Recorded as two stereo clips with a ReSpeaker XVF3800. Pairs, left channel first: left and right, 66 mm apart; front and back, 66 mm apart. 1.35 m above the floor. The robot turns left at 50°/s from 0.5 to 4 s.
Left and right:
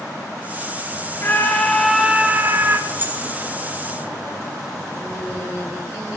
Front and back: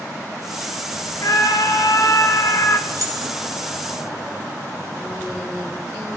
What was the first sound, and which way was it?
A scream, 35° left.